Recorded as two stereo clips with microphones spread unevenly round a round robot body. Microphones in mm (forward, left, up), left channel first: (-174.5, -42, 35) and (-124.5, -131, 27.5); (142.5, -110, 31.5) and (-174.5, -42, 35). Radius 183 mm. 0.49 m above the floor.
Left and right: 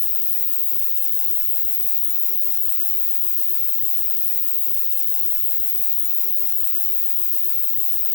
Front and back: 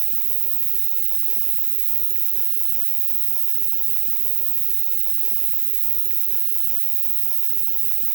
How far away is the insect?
About 1.2 m.